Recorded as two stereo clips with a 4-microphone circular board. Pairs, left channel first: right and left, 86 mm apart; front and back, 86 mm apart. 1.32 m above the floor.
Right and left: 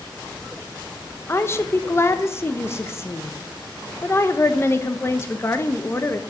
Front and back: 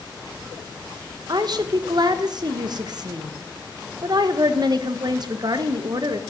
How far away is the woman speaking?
About 0.8 m.